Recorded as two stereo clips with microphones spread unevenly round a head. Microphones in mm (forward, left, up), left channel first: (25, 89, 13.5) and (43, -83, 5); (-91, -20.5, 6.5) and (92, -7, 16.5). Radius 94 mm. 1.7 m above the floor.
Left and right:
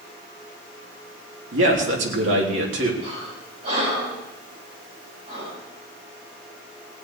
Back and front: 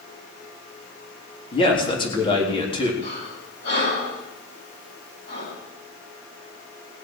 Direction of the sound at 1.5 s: 115° right.